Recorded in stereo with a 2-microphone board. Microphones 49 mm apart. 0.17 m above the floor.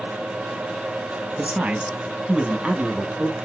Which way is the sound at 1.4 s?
25° right (ahead or behind).